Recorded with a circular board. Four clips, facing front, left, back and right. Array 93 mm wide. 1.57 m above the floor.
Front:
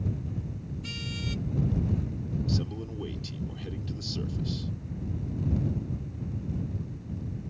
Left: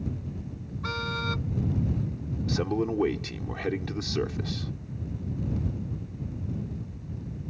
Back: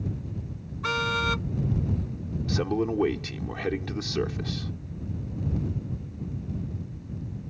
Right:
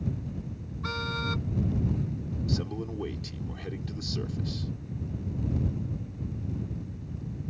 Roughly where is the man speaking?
Behind left.